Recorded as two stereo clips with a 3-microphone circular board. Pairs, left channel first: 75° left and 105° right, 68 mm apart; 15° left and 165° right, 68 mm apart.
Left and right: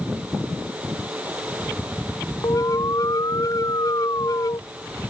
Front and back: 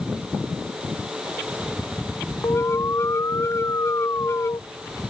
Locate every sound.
2.4 s an alarm: 55° left